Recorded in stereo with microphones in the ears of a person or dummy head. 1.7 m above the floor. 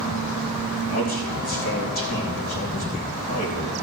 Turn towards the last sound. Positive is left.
turn(degrees=45)  # may be behind; listen again after turning